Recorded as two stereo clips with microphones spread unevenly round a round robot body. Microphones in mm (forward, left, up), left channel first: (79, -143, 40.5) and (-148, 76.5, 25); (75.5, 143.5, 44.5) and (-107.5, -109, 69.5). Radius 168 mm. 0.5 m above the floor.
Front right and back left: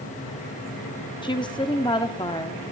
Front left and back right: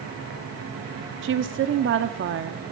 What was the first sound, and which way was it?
A woman speaking, 110° right.